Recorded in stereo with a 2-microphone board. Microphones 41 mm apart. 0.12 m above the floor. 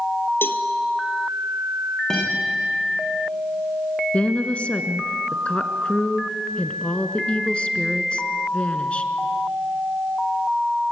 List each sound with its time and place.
0.4 s a cowbell: 60° left (ahead or behind), 1.5 m
2.1 s a guitar: 10° left (ahead or behind), 9 m
4.1 s a woman speaking: 30° left (ahead or behind), 1.6 m